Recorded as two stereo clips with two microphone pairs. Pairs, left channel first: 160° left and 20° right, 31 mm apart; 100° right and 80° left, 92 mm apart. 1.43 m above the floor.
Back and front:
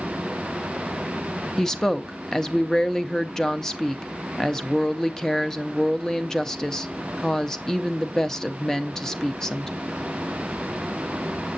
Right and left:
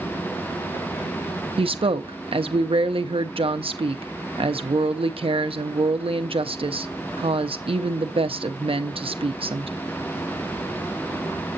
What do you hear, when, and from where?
1.6 s a woman speaking: 85° left, 0.8 m